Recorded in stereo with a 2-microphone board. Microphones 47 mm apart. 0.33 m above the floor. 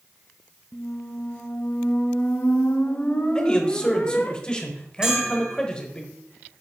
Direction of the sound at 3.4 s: 15° left (ahead or behind).